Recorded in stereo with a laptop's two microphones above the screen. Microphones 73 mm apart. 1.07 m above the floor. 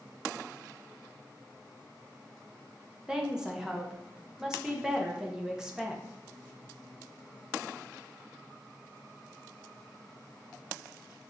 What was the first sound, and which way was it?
A woman speaking, 10° right (ahead or behind).